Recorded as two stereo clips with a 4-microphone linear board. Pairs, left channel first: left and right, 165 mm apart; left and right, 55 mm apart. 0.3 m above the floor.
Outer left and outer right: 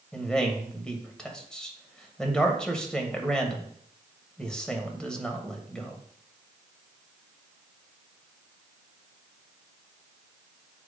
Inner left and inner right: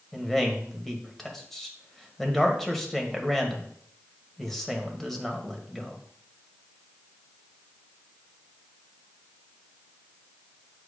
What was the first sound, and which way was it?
A man speaking, 5° left (ahead or behind).